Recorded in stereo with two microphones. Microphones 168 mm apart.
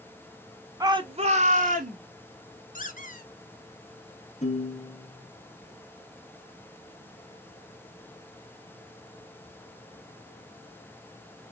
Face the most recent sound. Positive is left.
turn(degrees=45)  # may be behind; listen again after turning